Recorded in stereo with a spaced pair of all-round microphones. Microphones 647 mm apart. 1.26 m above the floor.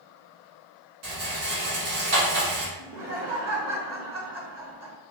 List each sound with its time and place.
1.0 s a rattle: 70° right (ahead or behind), 1.1 m
2.8 s laughter: 80° right, 1.3 m